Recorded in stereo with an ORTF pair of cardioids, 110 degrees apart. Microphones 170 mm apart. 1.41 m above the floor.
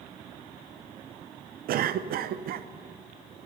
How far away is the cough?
About 0.7 m.